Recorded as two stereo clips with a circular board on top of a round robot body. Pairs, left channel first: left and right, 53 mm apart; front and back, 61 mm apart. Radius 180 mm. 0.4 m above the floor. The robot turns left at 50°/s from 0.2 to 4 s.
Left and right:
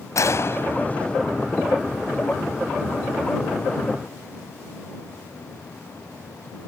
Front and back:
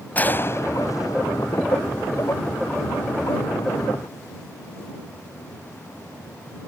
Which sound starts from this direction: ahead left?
A gunshot, at 0.1 s.